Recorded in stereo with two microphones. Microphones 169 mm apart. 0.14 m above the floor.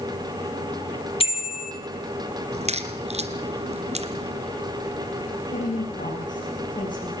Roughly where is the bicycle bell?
Left.